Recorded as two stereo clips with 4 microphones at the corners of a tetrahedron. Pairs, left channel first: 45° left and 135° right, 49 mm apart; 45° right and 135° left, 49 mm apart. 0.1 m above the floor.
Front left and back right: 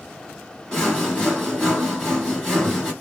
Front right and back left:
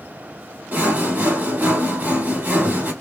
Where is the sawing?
115° left, 2 m.